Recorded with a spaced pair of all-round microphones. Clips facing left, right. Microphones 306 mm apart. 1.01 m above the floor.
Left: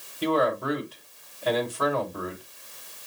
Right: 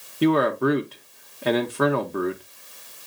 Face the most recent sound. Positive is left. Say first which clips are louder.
# right 6 dB
turn(degrees=-70)  # may be behind; listen again after turning